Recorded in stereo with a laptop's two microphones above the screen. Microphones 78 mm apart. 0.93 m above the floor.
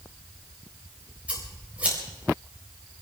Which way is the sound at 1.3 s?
15° right (ahead or behind).